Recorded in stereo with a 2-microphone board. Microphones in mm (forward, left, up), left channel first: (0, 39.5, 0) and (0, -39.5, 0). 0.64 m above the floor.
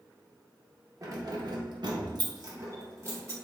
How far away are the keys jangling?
About 0.8 m.